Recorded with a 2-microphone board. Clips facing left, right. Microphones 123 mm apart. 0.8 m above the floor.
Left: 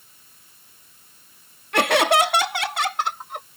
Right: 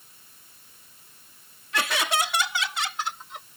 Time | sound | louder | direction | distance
1.7 | laughter | left 9 dB | 60° left (ahead or behind) | ?